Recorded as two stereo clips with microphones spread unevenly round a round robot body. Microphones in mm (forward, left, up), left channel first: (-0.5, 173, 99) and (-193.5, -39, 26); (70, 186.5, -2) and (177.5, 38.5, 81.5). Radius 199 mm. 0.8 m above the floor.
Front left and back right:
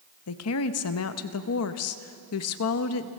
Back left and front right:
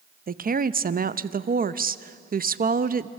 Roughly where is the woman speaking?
Ahead.